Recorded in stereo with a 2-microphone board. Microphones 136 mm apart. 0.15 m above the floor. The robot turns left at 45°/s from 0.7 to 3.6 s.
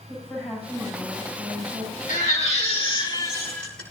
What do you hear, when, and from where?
0.1 s a woman speaking: 20° left, 9 m; by 2.0 s 40° right, 9 m
2.1 s a baby crying: 75° left, 10 m; by 3.8 s 10° left, 10 m